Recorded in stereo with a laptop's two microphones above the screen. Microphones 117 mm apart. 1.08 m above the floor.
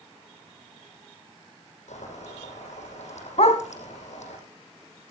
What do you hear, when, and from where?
1.9 s boiling: 85° left, 9 m
3.4 s a dog barking: 65° left (ahead or behind), 2 m